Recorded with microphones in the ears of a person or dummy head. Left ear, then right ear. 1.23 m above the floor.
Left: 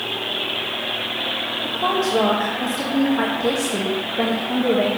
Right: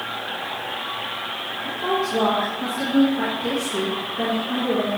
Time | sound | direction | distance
1.6 | a woman speaking | 85° left | 1.5 m